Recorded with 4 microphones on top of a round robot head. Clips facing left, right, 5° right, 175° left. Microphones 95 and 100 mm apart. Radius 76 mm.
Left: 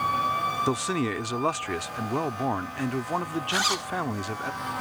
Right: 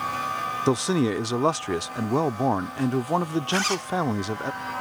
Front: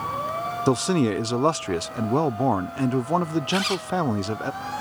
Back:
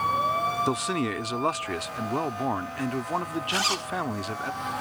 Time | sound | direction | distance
0.7 | a man speaking | 40° right | ?
3.5 | a zipper | 160° left | ?